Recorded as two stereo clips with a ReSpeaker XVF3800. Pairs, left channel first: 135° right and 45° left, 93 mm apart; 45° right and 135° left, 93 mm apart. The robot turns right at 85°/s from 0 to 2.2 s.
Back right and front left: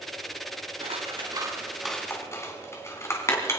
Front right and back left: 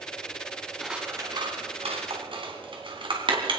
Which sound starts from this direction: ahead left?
Scissors, at 0.8 s.